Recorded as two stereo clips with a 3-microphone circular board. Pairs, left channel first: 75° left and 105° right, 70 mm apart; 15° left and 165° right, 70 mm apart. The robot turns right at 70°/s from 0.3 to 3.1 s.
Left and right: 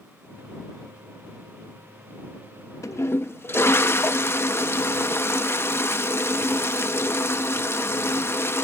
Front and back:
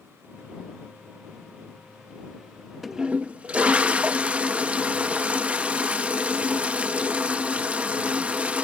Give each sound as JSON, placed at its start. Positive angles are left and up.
{"t": 2.8, "sound": "a toilet flushing", "azimuth_deg": 105}